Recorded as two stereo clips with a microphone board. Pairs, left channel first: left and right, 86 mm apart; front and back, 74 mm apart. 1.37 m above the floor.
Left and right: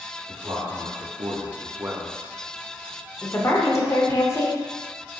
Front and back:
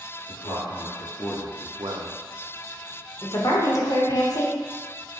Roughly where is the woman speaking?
Ahead left.